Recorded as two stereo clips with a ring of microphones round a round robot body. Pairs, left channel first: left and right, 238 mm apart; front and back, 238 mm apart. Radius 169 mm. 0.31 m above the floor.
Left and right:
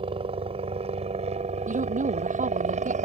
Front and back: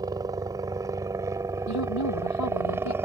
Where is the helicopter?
125° right; by 3.1 s 105° right.